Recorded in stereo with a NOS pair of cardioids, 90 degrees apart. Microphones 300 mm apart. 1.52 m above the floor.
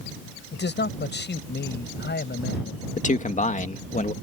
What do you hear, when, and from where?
0.5 s a man speaking: 35° left
3.0 s a man speaking: 25° left